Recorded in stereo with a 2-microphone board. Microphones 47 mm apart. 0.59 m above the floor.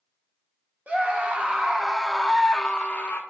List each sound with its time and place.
0.9 s a scream: 35° right (ahead or behind), 1.1 m; by 3.2 s 35° left (ahead or behind), 0.7 m